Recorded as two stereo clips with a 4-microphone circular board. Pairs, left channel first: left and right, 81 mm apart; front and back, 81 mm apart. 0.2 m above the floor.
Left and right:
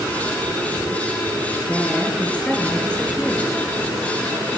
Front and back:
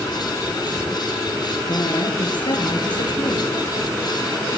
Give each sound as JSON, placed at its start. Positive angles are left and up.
{"t": 1.6, "sound": "a woman speaking", "azimuth_deg": 15, "distance_m": 4.0}